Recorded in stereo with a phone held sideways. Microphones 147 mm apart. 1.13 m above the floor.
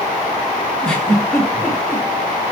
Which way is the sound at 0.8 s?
5° left (ahead or behind).